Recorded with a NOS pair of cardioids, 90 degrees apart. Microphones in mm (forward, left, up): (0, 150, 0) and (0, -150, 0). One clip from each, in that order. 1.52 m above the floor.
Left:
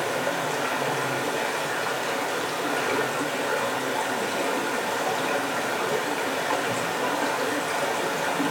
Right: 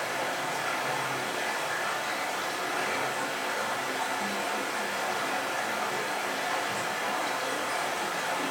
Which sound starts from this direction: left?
Running water, at 0.0 s.